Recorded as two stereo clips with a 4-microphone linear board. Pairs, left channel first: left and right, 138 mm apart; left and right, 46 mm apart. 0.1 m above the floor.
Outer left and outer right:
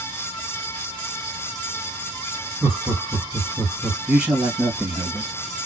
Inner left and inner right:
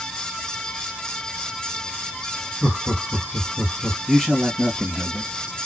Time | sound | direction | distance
2.6 | laughter | 10° right (ahead or behind) | 2.5 m
4.1 | a man speaking | 10° right (ahead or behind) | 2.0 m